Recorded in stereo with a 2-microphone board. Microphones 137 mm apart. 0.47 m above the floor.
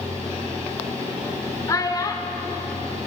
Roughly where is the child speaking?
Left.